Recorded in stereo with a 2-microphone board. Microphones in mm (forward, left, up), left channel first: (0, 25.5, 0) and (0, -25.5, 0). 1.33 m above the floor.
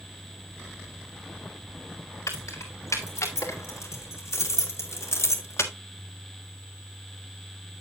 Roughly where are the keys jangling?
Left.